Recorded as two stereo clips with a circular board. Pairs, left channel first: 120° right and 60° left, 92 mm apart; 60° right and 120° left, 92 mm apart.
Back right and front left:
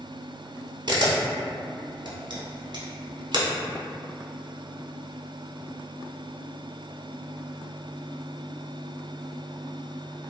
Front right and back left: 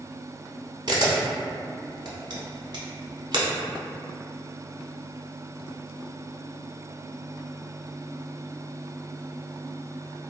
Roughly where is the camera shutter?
Left.